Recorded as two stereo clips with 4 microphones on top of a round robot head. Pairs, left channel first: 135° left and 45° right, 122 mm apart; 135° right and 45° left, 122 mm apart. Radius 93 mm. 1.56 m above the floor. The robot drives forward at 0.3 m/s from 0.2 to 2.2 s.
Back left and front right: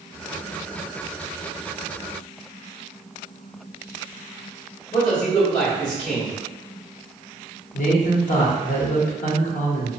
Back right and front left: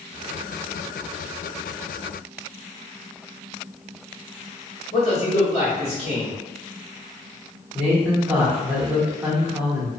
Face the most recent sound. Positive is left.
turn(degrees=120)